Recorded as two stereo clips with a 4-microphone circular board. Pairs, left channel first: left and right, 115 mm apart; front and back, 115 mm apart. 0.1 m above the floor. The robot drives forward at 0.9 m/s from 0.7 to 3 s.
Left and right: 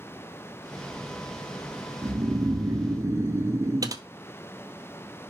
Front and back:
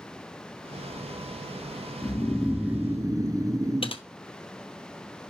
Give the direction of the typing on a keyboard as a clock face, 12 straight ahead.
1 o'clock.